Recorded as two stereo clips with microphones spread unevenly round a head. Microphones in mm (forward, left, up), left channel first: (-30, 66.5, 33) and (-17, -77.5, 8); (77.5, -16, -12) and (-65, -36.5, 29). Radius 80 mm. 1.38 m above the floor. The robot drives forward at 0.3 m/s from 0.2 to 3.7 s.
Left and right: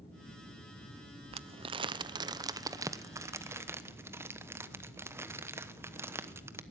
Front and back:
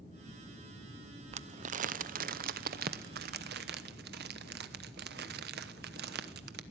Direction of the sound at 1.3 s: 120° right.